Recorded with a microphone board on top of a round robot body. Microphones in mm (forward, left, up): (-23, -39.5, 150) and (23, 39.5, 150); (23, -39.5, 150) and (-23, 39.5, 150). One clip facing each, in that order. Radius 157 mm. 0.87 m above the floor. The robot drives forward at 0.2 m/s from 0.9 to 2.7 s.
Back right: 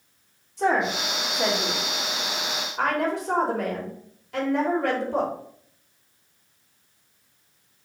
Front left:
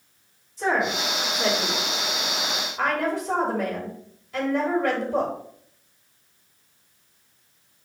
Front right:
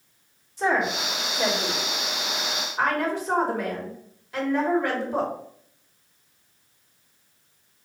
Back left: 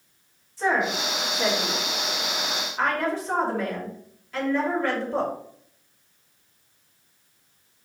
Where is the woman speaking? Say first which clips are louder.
Back right 1 dB, even; 130° right, 3.5 m; by 5.3 s 135° right, 3.5 m.